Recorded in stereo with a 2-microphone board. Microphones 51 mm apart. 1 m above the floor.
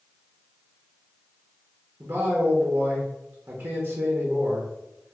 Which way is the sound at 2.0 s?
55° right (ahead or behind).